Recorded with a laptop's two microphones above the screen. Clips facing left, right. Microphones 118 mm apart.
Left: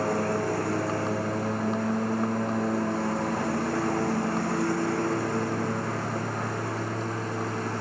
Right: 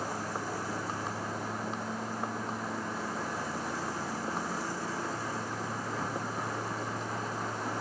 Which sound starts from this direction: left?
A lawn mower, at 0.0 s.